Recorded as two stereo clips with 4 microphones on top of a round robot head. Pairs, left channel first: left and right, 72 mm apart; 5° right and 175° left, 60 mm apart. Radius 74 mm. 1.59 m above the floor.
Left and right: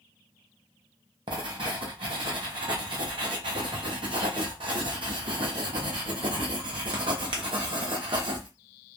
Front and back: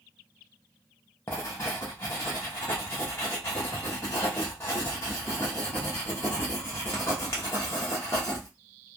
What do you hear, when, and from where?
1.3 s writing: 65° right, 0.7 m